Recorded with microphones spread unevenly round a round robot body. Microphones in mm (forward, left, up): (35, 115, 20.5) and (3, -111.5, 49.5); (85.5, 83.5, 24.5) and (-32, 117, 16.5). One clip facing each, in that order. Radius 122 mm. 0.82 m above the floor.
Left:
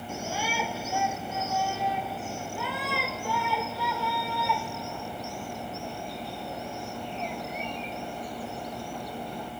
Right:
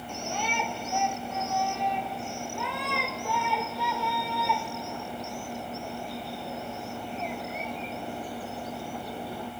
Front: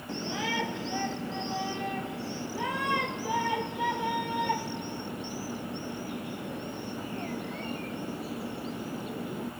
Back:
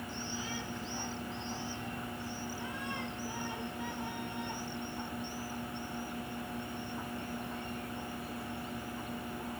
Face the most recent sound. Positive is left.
turn(degrees=-15)